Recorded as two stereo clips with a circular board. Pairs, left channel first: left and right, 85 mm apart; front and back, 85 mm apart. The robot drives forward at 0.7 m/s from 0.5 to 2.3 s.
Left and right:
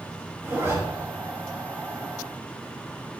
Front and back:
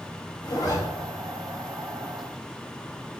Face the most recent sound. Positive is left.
turn(degrees=-50)